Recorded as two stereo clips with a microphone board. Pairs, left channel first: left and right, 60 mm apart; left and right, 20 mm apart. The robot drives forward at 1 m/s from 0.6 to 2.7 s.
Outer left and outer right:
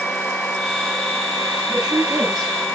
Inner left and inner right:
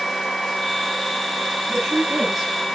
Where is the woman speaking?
5° right (ahead or behind), 8 m.